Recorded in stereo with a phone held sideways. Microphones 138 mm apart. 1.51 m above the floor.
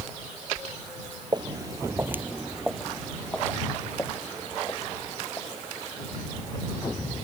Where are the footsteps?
30° right (ahead or behind); by 6.7 s 25° left (ahead or behind).